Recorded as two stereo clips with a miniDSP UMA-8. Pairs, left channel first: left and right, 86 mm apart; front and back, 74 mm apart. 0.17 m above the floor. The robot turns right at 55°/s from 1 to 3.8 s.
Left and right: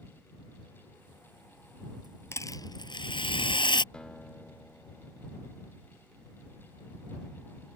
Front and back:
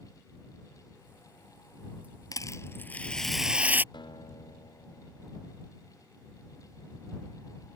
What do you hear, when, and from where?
2.3 s a rattle: 30° left; by 3.8 s 115° left
3.9 s a guitar: 10° left